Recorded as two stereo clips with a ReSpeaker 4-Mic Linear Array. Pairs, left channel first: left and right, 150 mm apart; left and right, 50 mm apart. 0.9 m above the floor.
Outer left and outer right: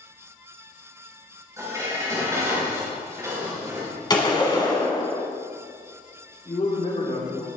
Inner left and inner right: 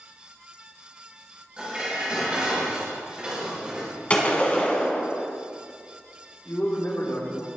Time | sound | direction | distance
1.6 | dishes clattering | 20° right (ahead or behind) | 4 m
4.1 | a gunshot | 30° left (ahead or behind) | 1.6 m
6.5 | a man speaking | 55° left (ahead or behind) | 2.5 m